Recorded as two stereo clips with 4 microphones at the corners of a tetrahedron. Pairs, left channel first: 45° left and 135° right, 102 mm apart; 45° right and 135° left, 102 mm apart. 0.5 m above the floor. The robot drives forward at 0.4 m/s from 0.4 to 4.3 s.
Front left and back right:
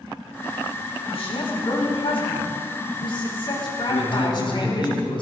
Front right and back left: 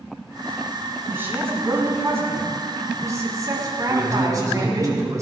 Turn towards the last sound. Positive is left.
turn(degrees=75)